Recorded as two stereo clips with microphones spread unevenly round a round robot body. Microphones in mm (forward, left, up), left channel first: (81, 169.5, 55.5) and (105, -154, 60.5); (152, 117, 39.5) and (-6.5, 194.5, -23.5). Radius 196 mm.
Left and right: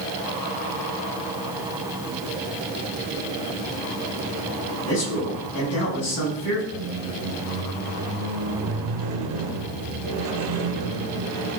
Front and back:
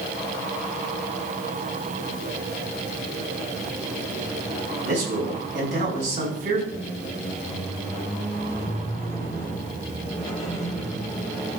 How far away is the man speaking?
About 4.5 m.